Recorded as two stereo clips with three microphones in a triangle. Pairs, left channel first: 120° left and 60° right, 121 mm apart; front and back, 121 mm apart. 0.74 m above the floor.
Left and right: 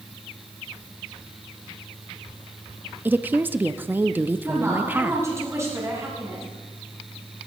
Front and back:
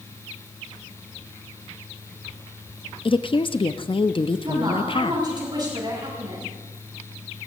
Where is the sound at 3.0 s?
5° left, 0.6 m.